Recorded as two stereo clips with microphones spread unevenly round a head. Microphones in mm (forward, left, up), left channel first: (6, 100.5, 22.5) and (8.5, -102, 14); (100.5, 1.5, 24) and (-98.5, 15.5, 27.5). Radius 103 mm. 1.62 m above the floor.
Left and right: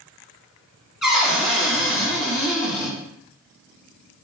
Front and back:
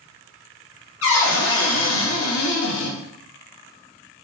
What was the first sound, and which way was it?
A cupboard door, straight ahead.